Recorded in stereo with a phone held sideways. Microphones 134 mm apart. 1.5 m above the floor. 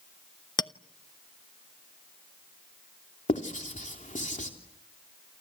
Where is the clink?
30° left (ahead or behind), 0.7 m.